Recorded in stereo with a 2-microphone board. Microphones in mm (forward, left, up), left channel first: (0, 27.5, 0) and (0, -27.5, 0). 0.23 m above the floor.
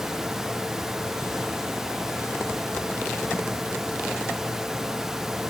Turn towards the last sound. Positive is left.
No sound to turn to.